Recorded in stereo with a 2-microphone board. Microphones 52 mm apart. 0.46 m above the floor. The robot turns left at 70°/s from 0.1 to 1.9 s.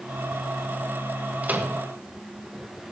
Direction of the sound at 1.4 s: 30° right (ahead or behind).